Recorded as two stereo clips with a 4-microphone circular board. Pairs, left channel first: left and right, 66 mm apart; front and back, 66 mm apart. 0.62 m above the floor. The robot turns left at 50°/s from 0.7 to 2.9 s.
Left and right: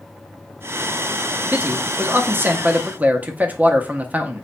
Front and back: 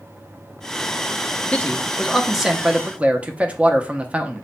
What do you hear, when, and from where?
1.5 s a man speaking: 55° right, 0.6 m; by 4.5 s 125° right, 0.6 m